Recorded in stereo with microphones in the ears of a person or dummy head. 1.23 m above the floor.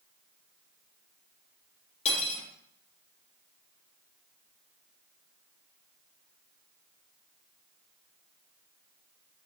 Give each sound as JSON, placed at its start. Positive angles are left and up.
{"t": 2.0, "sound": "cutlery clinking", "side_deg": 35, "distance_m": 0.8}